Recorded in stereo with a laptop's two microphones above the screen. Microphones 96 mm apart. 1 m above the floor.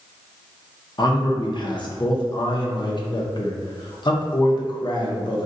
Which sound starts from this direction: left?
A man speaking, at 1.0 s.